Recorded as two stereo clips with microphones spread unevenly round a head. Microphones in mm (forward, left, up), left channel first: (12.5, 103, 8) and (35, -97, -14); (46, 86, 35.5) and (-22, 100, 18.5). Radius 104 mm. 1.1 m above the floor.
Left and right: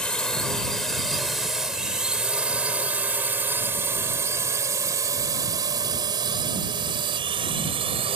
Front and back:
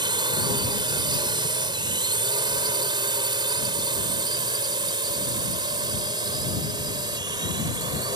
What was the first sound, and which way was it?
A drone, straight behind.